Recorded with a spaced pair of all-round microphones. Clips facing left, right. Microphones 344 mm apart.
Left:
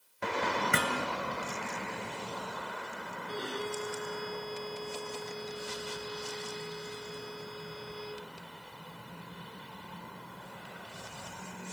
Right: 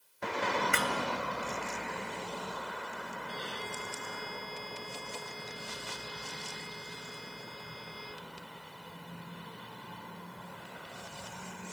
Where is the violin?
60° left (ahead or behind).